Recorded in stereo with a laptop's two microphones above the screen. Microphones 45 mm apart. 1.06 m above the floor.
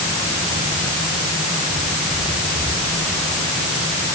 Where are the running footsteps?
No running footsteps in this recording.